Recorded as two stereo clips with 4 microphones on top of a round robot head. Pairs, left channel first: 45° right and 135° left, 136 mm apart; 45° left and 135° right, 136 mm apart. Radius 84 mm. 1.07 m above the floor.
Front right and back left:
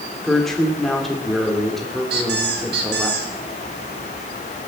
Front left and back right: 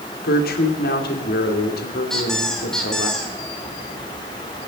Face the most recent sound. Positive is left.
turn(degrees=130)